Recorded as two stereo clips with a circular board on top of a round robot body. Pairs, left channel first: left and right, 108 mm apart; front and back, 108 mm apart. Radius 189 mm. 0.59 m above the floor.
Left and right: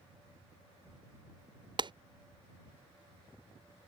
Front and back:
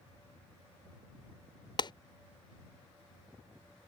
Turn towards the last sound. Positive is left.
turn(degrees=-45)